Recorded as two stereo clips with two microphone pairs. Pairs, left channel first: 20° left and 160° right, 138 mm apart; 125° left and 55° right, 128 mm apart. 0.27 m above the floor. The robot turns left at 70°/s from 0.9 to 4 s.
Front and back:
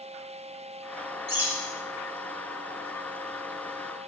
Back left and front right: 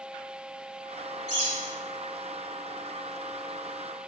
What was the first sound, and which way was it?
A bird, 130° left.